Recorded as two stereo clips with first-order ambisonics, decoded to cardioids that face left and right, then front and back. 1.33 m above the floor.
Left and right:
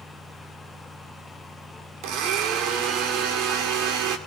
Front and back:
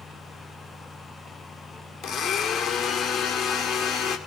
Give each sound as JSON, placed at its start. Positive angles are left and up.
{"t": 2.0, "sound": "a blender", "azimuth_deg": -55, "distance_m": 2.0}